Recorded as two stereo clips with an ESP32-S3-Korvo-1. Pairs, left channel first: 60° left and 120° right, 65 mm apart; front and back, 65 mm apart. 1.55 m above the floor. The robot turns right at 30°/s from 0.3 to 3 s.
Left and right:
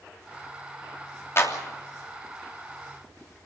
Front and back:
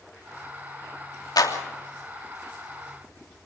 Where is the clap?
10° left, 3 m; by 1.6 s 15° left, 3 m.